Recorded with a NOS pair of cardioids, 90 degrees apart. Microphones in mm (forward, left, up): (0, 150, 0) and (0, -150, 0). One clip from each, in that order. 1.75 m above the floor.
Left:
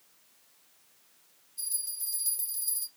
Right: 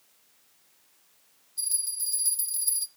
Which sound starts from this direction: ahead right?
A bell, at 1.6 s.